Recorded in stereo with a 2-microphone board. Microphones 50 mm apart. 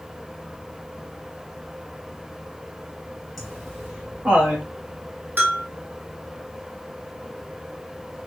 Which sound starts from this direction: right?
A bell, at 5.4 s.